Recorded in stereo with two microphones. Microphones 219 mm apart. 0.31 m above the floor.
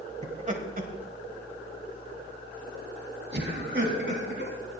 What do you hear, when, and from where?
0.2 s laughter: 30° right (ahead or behind), 1.5 m; by 4.5 s 60° right (ahead or behind), 3 m